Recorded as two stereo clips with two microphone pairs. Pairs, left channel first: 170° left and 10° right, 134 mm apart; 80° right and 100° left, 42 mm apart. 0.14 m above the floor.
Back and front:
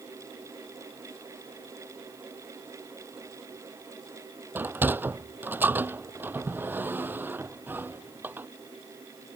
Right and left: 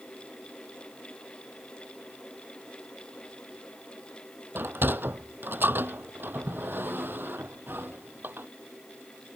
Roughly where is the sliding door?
Left.